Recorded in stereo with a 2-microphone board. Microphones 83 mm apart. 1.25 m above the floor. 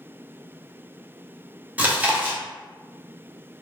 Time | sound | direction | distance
1.8 | chewing | 20° right (ahead or behind) | 0.6 m